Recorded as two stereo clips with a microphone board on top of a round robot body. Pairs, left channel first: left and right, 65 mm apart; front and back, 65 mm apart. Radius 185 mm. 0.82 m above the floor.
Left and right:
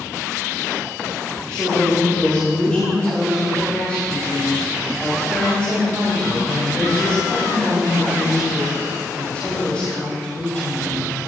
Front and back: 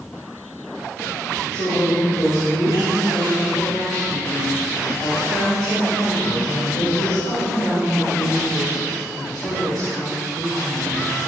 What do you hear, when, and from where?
1.5 s a woman speaking: 20° left, 4.5 m